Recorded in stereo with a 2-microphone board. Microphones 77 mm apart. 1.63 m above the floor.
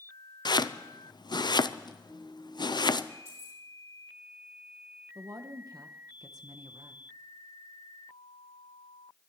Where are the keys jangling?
40° right (ahead or behind), 4 m.